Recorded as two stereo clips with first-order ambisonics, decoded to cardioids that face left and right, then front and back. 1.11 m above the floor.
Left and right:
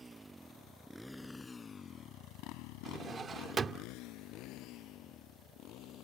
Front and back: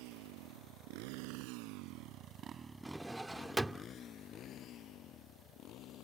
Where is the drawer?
100° right.